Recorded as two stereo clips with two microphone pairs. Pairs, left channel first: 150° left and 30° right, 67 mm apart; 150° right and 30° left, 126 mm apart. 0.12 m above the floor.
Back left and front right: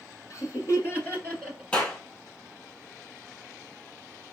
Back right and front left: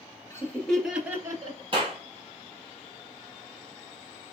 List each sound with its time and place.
0.3 s laughter: 150° left, 1.6 m; by 1.6 s 75° left, 1.6 m
1.7 s a clap: 85° left, 2 m